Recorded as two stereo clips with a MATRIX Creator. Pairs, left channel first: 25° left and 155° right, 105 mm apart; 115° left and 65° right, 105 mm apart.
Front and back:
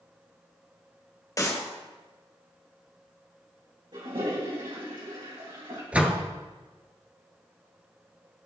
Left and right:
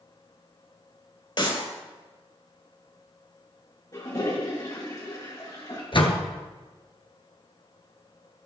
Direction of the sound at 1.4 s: 80° left.